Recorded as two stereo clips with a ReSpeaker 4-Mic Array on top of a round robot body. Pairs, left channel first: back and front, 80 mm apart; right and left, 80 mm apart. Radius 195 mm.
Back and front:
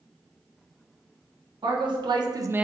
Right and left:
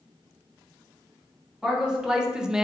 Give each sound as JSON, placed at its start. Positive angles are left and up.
{"t": 1.6, "sound": "a man speaking", "azimuth_deg": 10, "distance_m": 1.2}